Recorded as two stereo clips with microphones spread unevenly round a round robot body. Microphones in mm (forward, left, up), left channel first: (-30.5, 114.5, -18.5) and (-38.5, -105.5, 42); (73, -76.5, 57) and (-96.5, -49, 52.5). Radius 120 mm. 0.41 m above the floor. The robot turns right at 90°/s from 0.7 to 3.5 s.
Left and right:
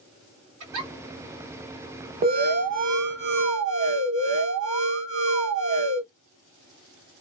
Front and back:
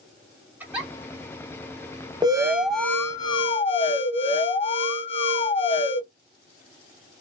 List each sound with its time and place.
0.6 s a giggle: 110° right, 1.4 m; by 0.9 s 95° right, 1.4 m
2.2 s an alarm: 145° right, 0.8 m; by 6.0 s 30° right, 0.8 m